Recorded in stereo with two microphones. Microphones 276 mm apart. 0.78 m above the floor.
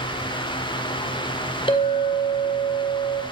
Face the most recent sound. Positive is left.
turn(degrees=20)  # may be behind; listen again after turning